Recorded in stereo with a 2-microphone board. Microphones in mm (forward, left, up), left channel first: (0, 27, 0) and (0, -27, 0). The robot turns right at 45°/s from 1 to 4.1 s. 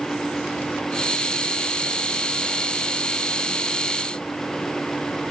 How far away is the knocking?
No knocking in this recording.